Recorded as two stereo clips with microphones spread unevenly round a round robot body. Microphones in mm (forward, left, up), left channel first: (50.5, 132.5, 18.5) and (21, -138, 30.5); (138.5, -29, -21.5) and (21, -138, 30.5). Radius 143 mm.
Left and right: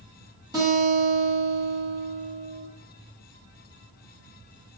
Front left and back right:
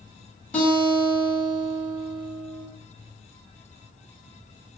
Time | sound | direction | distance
0.5 | a guitar | 25° right | 1.6 m